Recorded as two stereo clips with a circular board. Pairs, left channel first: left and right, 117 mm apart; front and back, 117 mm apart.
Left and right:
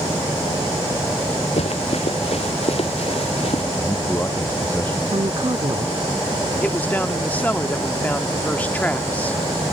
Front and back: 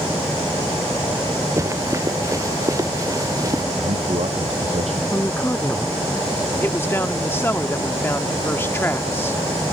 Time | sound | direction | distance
1.6 | running footsteps | 115° left | ?
3.8 | a man speaking | 165° left | ?
5.1 | a woman speaking | 65° right | ?
6.6 | a man speaking | 35° left | ?